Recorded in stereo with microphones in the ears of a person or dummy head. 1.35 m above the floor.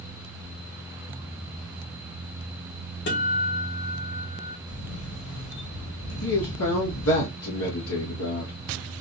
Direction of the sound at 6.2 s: 70° left (ahead or behind).